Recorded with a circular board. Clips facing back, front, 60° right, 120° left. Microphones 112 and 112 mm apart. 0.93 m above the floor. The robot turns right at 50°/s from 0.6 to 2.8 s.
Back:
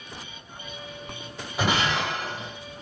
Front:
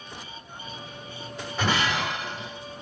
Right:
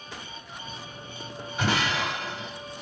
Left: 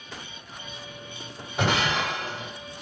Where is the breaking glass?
100° left, 2.5 m; by 2.5 s 145° left, 2.5 m.